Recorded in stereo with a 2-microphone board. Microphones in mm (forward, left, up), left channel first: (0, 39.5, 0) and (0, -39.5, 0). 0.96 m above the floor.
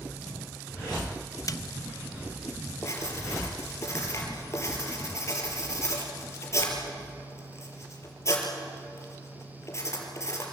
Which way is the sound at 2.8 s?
35° left (ahead or behind).